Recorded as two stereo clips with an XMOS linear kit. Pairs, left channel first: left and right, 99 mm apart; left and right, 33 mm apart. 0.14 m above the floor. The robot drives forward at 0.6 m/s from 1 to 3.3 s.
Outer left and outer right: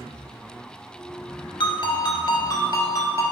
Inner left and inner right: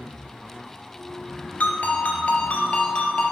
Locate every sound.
1.6 s a ringtone: 55° left (ahead or behind), 1.1 m; by 3.2 s 35° left (ahead or behind), 1.7 m